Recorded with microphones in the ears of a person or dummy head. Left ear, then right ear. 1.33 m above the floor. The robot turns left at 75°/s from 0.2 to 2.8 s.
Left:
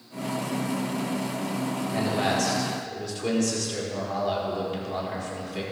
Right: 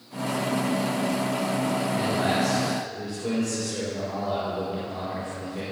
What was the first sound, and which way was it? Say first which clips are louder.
A man speaking: left 2 dB; 115° left.